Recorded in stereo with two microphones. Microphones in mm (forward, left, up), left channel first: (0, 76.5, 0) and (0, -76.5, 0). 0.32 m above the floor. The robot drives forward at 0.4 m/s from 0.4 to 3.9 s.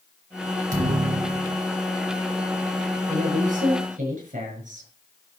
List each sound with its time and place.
0.7 s a thud: 75° right (ahead or behind), 3 m; by 1.6 s 70° right (ahead or behind), 3 m
3.1 s a woman speaking: 65° right (ahead or behind), 5.5 m; by 4.9 s 60° right (ahead or behind), 5.5 m